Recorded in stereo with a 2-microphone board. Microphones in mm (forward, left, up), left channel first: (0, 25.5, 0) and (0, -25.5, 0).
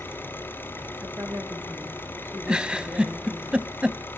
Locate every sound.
0.0 s an engine running: 45° left (ahead or behind), 4 m
1.0 s a woman speaking: 55° right (ahead or behind), 4 m
2.5 s a giggle: 15° right (ahead or behind), 0.7 m